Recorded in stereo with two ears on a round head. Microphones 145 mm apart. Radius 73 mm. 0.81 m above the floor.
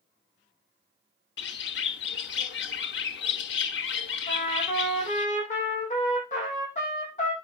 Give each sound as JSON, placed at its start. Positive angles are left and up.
{"t": 1.4, "sound": "a bird", "side_deg": 80, "distance_m": 0.9}
{"t": 4.3, "sound": "a trumpet", "side_deg": 45, "distance_m": 7.0}